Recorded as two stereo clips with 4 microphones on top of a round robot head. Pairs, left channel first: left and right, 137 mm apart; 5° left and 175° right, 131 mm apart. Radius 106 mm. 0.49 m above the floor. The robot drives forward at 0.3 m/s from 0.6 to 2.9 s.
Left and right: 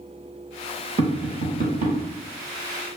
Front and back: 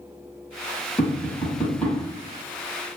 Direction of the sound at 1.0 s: 70° right.